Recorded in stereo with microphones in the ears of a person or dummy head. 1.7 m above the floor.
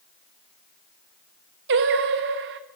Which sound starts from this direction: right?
Singing, at 1.7 s.